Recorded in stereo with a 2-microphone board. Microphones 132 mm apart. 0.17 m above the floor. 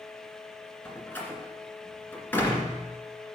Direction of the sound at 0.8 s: 15° left (ahead or behind).